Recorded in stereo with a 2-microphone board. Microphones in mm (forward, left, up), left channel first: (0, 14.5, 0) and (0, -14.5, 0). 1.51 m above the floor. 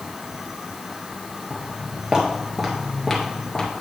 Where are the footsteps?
40° right (ahead or behind), 1.8 m; by 3.7 s 25° left (ahead or behind), 1.6 m.